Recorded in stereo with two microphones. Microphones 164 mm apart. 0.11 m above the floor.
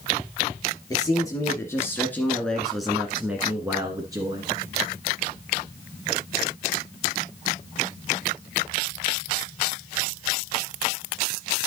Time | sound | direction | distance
0.9 | a man speaking | 25° left (ahead or behind) | 2.5 m